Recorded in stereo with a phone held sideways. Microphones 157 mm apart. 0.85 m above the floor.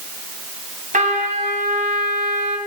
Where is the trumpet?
60° right (ahead or behind), 3.5 m.